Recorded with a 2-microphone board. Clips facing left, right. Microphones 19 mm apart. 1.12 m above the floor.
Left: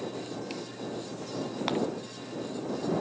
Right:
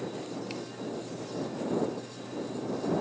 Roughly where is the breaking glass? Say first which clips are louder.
Left 1 dB; left.